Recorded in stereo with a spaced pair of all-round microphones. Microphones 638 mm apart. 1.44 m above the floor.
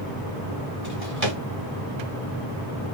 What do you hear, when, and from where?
0.8 s a drawer: 55° right (ahead or behind), 2 m